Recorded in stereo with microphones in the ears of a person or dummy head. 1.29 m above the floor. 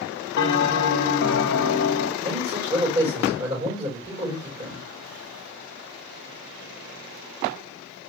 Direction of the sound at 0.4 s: 60° left (ahead or behind).